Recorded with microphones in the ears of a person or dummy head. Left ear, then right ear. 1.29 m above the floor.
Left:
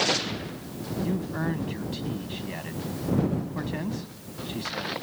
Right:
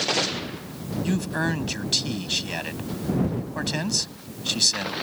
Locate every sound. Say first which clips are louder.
1.0 s a man speaking: right 6 dB; 80° right